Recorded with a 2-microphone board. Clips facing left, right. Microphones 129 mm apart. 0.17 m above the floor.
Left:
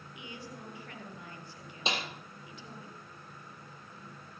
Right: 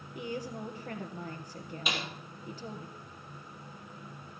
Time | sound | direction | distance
0.1 | a woman speaking | 45° right (ahead or behind) | 3.5 m
1.9 | a snare drum | 30° left (ahead or behind) | 3.5 m